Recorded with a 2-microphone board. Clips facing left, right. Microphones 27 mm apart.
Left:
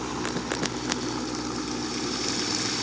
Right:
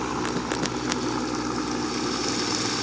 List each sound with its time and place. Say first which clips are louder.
0.0 s a helicopter: right 3 dB; 25° right (ahead or behind)